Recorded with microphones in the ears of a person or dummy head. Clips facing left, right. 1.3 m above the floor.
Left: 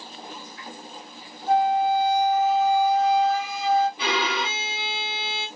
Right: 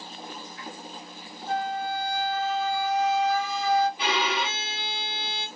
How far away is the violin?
About 0.9 m.